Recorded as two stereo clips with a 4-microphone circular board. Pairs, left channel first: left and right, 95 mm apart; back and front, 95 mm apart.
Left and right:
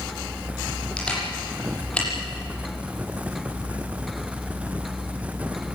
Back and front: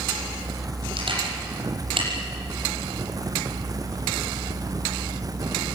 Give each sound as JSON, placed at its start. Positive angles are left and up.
{"t": 1.0, "sound": "a camera shutter", "azimuth_deg": 10, "distance_m": 7.5}